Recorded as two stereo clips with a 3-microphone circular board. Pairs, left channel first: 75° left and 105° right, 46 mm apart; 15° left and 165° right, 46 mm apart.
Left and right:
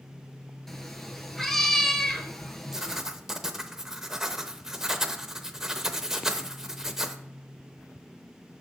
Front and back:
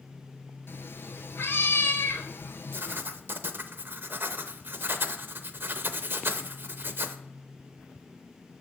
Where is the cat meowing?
10° right, 0.8 m.